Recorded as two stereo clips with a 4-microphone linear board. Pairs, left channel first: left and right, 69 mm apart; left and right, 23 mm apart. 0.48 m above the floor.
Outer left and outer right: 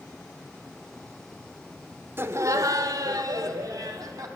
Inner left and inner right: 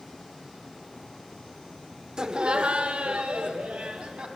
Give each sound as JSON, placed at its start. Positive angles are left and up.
{"t": 2.2, "sound": "laughter", "side_deg": -35, "distance_m": 1.0}